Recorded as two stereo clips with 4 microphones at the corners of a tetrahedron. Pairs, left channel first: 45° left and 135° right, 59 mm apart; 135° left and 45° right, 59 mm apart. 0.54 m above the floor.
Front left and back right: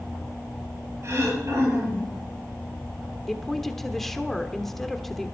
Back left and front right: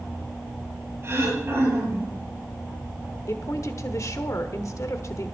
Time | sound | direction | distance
1.0 | throat clearing | 95° right | 8 m
3.3 | a woman speaking | 130° left | 1.2 m